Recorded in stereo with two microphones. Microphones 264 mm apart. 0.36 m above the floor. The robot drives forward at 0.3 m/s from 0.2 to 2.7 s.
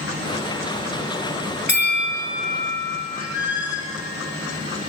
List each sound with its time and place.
1.7 s a bell: 40° left (ahead or behind), 2.5 m; by 3.0 s 35° left (ahead or behind), 3 m
3.1 s a squeak: 15° left (ahead or behind), 4.5 m